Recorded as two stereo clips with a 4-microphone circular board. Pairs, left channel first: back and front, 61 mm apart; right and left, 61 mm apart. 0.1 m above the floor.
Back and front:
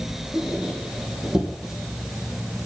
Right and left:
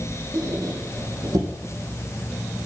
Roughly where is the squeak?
Left.